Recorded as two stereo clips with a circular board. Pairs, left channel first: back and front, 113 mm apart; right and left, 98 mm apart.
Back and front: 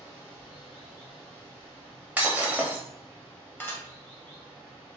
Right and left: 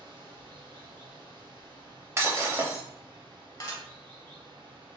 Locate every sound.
0.0 s running water: 110° left, 1.3 m
2.2 s breaking glass: 60° left, 0.7 m
3.6 s dishes clattering: 115° right, 0.8 m